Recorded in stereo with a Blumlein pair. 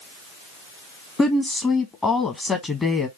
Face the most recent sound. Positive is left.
turn(degrees=15)